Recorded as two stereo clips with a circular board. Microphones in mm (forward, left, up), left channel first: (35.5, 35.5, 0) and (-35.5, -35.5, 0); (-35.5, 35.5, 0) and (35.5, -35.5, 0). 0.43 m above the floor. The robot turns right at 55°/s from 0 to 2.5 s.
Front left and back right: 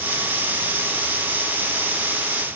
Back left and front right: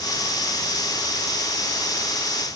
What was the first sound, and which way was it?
Only background noise.